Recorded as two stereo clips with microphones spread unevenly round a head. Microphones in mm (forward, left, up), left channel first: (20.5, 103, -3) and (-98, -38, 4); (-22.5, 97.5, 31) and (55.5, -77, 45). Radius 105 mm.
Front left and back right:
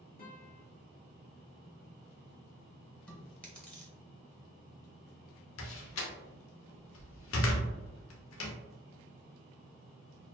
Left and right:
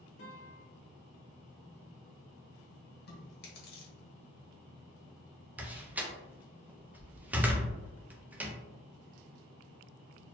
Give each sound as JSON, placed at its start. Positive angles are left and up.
{"t": 0.2, "sound": "a guitar", "azimuth_deg": 90, "distance_m": 1.3}
{"t": 3.1, "sound": "chewing", "azimuth_deg": 130, "distance_m": 1.2}
{"t": 5.6, "sound": "a door slam", "azimuth_deg": 15, "distance_m": 0.6}